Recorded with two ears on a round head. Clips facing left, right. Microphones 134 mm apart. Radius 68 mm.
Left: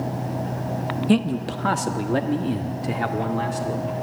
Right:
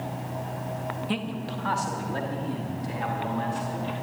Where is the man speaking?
50° left (ahead or behind), 0.8 m; by 3.9 s 75° left (ahead or behind), 2 m.